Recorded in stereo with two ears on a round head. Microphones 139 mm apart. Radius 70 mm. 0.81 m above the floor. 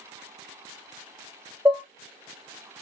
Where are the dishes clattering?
10° right (ahead or behind), 0.6 m.